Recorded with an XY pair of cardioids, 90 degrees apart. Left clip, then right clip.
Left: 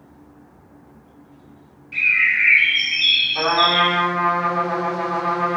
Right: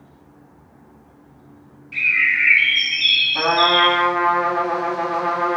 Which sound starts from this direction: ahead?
A bird, at 1.9 s.